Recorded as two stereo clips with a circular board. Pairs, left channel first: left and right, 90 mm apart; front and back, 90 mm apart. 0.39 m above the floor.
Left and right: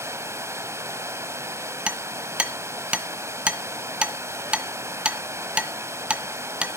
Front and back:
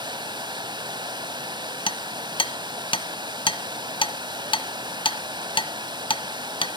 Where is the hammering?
15° right, 1.4 m.